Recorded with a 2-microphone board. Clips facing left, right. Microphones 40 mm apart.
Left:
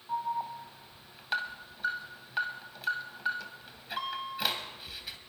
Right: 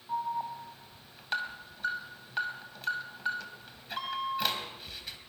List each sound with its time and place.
0.1 s an alarm: centre (ahead or behind), 2.5 m